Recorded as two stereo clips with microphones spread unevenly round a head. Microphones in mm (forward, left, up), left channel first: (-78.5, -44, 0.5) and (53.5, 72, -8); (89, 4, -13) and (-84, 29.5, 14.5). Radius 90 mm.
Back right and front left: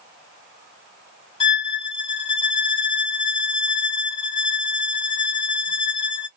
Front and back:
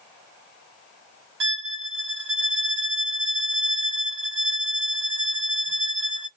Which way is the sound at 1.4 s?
160° left.